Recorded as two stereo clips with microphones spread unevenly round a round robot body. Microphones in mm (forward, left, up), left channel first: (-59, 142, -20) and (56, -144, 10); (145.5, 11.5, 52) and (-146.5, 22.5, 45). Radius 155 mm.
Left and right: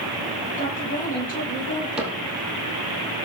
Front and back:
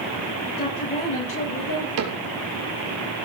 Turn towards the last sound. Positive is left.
turn(degrees=-155)